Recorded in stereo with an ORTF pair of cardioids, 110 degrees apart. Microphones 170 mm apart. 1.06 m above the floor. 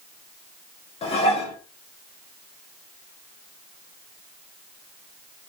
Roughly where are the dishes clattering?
Ahead left.